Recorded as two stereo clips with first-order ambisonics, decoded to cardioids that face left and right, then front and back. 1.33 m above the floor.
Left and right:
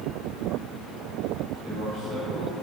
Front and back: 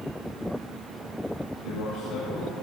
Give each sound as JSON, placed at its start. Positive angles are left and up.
{"t": 1.6, "sound": "a man speaking", "azimuth_deg": -45, "distance_m": 6.0}